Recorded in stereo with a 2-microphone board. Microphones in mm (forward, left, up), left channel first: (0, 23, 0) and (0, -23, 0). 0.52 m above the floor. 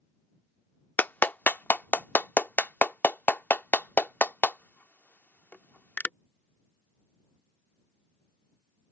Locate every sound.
1.0 s a clap: 40° left (ahead or behind)